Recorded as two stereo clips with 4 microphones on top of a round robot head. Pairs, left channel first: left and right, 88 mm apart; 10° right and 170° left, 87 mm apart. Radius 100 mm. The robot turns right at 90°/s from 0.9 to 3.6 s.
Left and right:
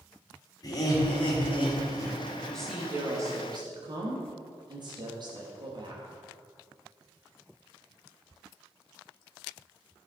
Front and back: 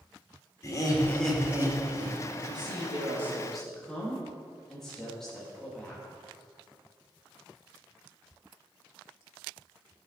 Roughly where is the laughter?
Ahead left.